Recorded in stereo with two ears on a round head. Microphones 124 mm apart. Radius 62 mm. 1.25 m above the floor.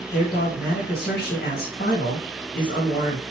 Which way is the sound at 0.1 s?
75° left (ahead or behind).